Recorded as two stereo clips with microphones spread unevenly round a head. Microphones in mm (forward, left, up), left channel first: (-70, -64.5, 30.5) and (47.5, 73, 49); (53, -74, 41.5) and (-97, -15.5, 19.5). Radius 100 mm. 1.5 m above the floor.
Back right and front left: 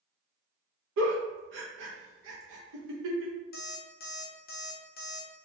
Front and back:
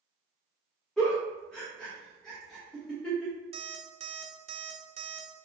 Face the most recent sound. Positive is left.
turn(degrees=-155)